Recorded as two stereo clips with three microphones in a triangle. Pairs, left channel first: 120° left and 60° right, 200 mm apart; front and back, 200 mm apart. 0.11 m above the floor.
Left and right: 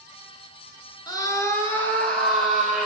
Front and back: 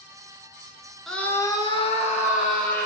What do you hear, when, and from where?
1.1 s a scream: 90° left, 1.2 m; by 2.9 s 30° left, 2 m